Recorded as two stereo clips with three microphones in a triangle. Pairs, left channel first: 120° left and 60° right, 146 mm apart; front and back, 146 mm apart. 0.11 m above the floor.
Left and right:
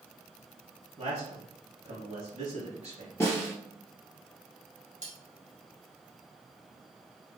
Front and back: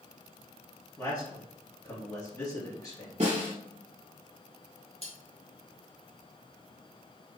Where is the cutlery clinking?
40° right, 1.9 m.